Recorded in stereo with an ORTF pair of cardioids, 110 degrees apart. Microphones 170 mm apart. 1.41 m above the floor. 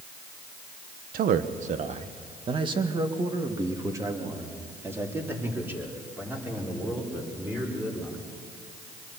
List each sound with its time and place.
1.1 s a man speaking: 60° right, 1.2 m; by 8.2 s 10° right, 6 m